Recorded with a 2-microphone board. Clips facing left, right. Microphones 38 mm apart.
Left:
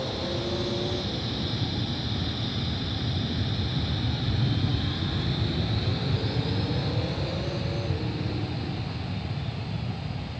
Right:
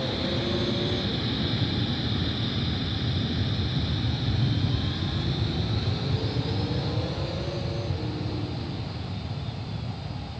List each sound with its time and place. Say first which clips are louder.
0.0 s an aircraft: right 2 dB; 25° right (ahead or behind); by 10.4 s 35° left (ahead or behind)